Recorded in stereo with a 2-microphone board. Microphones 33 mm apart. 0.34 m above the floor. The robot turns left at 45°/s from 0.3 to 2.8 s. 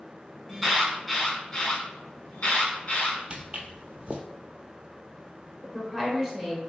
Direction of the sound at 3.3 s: 40° right (ahead or behind).